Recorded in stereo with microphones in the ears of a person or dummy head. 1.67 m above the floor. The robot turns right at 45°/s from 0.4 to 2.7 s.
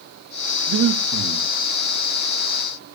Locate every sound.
0.7 s breathing: 80° right, 1.8 m; by 1.5 s 45° right, 1.8 m